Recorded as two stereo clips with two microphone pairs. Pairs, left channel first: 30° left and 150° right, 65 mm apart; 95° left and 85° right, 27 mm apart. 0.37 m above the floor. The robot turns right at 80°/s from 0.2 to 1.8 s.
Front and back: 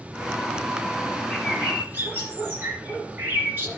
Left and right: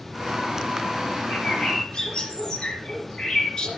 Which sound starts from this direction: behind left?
A bird, at 1.3 s.